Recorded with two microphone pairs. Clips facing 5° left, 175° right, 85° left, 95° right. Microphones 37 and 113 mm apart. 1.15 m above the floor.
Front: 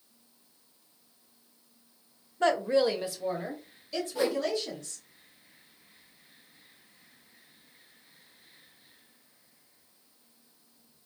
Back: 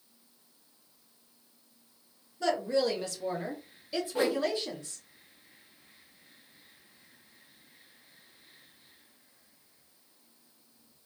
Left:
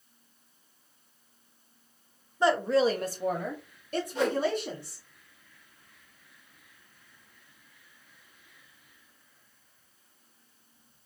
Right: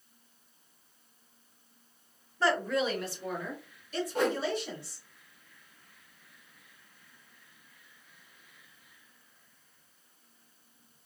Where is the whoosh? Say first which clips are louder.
Even, left 1 dB; 125° right, 0.7 m.